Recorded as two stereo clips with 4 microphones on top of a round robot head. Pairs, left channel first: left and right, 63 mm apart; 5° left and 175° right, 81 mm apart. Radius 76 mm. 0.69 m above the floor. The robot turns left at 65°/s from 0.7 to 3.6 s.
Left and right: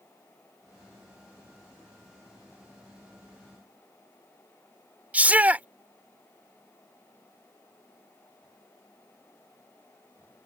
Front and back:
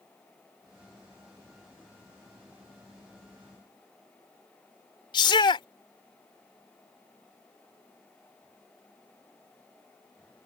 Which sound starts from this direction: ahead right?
A shout, at 5.1 s.